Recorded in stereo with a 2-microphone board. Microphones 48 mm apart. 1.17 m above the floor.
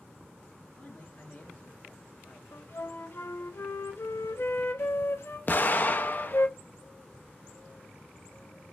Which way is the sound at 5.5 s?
40° left (ahead or behind).